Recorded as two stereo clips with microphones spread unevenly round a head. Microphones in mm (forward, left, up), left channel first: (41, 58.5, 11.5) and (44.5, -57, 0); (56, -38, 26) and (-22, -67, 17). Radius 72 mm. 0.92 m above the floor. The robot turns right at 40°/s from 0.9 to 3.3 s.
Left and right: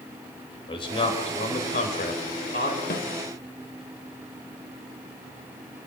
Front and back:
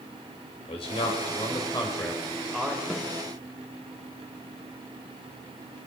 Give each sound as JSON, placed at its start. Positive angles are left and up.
{"t": 0.7, "sound": "a man speaking", "azimuth_deg": 50, "distance_m": 4.5}
{"t": 2.9, "sound": "a snare drum", "azimuth_deg": 115, "distance_m": 1.6}